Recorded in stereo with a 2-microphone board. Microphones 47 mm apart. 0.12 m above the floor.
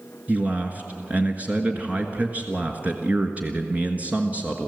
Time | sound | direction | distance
0.3 | a man speaking | 30° right (ahead or behind) | 1.4 m